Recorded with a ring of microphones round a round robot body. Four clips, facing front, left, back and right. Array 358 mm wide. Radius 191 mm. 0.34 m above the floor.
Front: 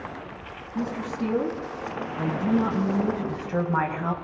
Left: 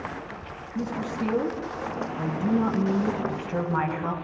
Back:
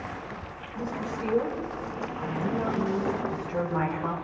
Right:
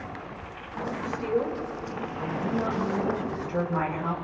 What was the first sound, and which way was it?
A woman speaking, 45° left.